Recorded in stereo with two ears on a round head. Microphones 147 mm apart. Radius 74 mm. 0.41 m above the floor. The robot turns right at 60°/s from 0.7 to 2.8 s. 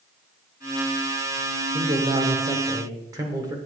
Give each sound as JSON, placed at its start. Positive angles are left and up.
{"t": 1.7, "sound": "a man speaking", "side_deg": -25, "distance_m": 1.1}